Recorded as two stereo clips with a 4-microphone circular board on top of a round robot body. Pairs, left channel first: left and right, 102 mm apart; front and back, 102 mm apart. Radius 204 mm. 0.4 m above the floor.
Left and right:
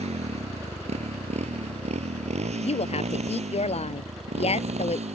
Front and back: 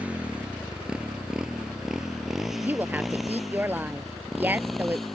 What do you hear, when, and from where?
0.0 s a motorcycle: 105° right; by 5.1 s 90° right
2.6 s a woman speaking: 105° left